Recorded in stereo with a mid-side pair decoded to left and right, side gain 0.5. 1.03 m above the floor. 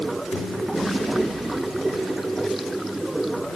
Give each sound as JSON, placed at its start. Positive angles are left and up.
{"t": 0.0, "sound": "running water", "azimuth_deg": -10}